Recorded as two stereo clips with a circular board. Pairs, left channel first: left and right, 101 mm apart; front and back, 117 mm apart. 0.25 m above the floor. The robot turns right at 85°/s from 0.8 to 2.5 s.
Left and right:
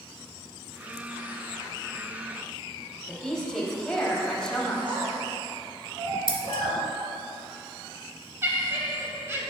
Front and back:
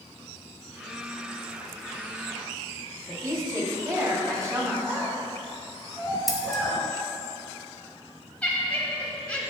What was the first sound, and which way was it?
A woman speaking, 165° left.